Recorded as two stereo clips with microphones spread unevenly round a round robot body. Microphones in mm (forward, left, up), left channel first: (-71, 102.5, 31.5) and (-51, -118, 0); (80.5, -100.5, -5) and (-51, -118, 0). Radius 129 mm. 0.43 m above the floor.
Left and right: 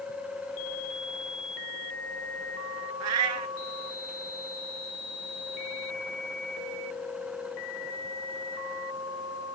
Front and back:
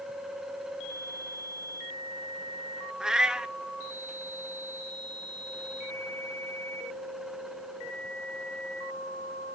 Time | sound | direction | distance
3.0 | a cat meowing | 85° right | 1.2 m